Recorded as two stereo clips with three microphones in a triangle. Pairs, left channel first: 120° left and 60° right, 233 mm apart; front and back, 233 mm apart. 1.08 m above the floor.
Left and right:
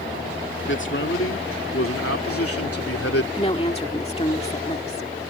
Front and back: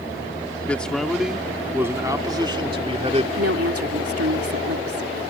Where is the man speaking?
85° left; by 3.3 s 115° left.